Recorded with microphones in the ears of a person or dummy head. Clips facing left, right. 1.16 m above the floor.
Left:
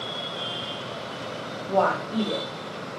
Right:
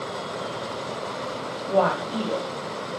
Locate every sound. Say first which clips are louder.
1.7 s a woman speaking: right 1 dB; 15° right (ahead or behind), 1.1 m